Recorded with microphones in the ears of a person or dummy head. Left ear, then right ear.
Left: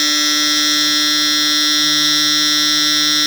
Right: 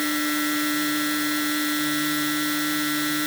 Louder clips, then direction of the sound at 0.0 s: Left 10 dB; 75° left (ahead or behind).